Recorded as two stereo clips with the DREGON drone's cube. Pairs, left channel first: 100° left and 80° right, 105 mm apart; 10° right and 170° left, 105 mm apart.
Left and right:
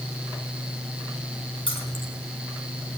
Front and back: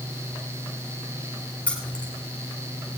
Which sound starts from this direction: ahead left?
Keys jangling, at 1.7 s.